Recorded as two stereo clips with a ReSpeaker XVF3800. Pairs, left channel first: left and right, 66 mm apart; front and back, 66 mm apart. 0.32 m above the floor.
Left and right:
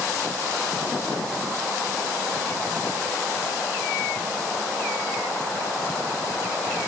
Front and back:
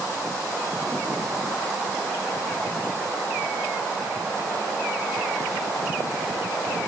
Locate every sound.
Only background noise.